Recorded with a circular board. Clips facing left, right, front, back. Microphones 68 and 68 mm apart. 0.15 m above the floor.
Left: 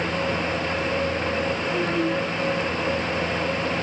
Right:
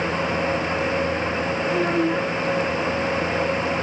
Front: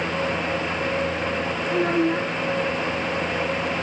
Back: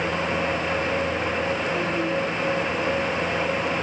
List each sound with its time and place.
1.7 s a child speaking: 25° right